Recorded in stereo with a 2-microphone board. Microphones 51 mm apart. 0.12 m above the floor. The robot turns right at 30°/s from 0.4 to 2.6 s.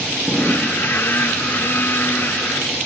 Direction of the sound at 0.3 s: Centre (ahead or behind).